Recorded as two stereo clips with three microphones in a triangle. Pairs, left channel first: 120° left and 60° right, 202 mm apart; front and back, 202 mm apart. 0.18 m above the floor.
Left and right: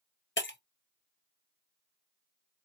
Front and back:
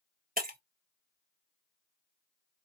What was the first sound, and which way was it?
Breaking glass, 140° left.